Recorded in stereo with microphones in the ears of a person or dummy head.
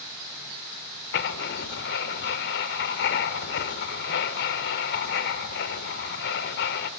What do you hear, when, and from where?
1.1 s writing: 60° left (ahead or behind), 1.6 m